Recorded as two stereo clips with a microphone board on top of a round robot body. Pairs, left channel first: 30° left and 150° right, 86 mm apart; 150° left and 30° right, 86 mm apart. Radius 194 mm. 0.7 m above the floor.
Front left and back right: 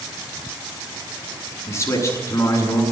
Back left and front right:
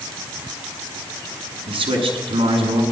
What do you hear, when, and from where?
1.7 s a man speaking: 30° right, 7.5 m